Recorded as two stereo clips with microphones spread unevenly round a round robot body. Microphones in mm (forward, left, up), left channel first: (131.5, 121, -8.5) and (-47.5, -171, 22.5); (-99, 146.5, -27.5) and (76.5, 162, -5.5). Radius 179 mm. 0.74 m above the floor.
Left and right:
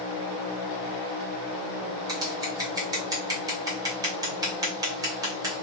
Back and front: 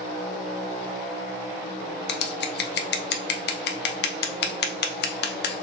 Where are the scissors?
155° left, 0.6 m.